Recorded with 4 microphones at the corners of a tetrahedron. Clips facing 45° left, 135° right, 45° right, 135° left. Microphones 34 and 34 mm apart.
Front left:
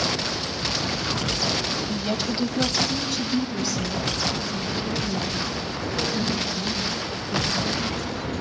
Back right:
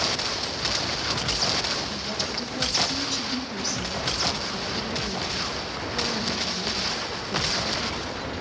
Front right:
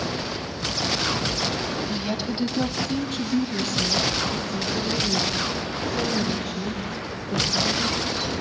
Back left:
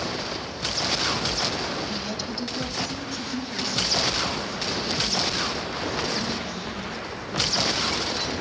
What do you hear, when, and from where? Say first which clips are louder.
1.9 s a woman speaking: front left 4 dB, front right 3 dB; 25° left, 1.2 m; by 8.4 s 70° right, 7 m